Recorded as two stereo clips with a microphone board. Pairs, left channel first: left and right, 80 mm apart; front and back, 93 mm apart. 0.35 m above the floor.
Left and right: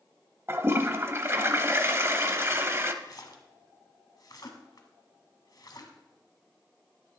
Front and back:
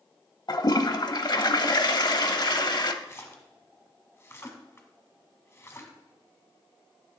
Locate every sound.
0.5 s a toilet flushing: 35° right, 0.7 m
3.0 s a splash: 60° left, 1.4 m